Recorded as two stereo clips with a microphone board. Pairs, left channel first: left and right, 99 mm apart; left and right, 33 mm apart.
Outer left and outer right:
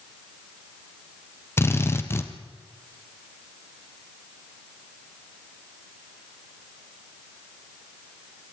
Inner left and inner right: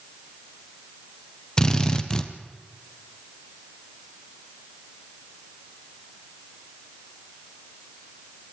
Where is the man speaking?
I don't hear a man speaking.